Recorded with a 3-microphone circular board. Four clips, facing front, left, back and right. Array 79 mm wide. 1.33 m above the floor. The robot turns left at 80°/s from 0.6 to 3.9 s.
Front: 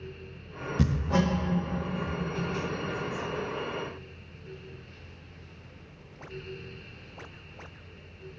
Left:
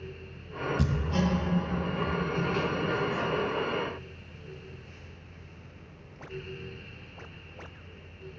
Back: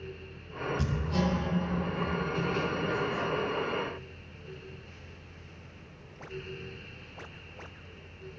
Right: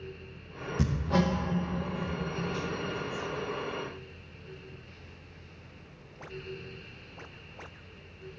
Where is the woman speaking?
No woman speaking in this recording.